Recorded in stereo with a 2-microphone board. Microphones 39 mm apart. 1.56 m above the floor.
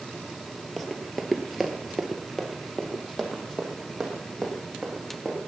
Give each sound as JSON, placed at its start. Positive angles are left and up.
{"t": 0.8, "sound": "running footsteps", "side_deg": 0, "distance_m": 1.8}